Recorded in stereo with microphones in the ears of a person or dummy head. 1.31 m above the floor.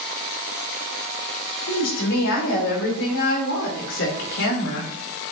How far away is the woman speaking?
About 5.5 m.